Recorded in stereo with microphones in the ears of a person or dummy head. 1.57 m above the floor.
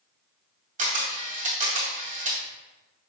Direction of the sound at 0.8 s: 30° right (ahead or behind).